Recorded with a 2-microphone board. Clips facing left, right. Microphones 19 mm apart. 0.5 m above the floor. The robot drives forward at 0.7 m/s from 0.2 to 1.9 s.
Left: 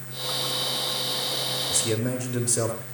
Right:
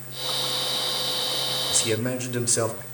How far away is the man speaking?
About 2.5 m.